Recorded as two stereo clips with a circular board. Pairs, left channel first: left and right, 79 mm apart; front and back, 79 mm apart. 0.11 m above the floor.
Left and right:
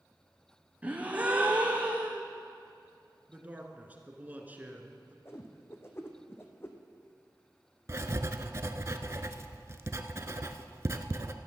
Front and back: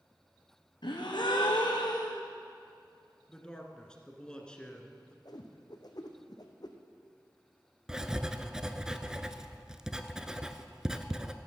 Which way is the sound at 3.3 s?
60° right.